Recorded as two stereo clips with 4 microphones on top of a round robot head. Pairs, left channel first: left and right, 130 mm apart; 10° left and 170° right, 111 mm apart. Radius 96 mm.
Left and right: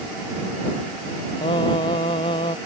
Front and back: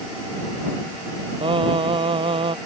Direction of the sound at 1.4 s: 150° left.